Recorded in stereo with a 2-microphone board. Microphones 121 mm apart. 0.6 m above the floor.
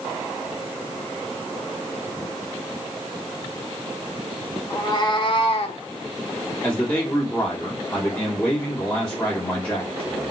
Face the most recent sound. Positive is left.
turn(degrees=25)  # may be behind; listen again after turning